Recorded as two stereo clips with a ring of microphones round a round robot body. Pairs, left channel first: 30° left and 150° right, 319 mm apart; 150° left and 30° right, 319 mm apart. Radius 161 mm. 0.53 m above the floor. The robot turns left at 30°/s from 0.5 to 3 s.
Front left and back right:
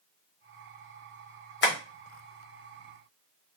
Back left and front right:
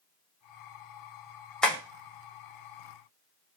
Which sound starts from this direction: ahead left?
Tapping, at 1.6 s.